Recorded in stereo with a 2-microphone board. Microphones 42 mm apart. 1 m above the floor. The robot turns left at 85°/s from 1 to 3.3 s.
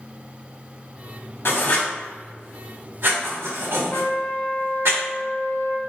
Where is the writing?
70° left (ahead or behind), 1.2 m; by 4.9 s 90° right, 1.2 m.